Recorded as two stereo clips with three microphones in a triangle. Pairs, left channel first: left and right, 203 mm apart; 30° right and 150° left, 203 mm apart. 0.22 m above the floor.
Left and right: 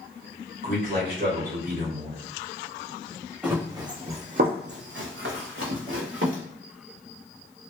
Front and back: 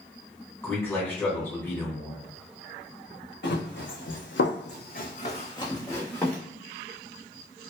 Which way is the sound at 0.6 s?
105° right.